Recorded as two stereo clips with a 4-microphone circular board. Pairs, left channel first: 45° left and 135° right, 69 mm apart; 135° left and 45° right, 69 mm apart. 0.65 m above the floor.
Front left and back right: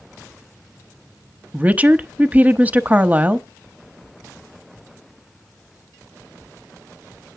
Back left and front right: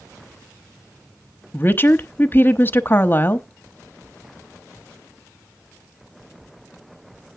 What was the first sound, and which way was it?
A woman speaking, 170° left.